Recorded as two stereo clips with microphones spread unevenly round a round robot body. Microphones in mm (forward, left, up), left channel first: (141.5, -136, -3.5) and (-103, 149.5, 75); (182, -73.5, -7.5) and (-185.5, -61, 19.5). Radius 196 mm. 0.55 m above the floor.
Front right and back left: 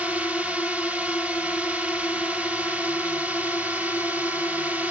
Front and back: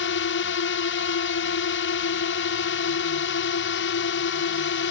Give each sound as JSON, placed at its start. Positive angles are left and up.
{"t": 0.0, "sound": "a drone", "azimuth_deg": 30}